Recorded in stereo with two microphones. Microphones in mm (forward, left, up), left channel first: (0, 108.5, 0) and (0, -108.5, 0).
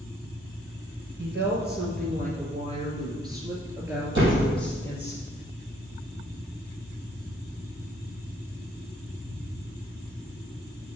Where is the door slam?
55° right (ahead or behind), 3.5 m.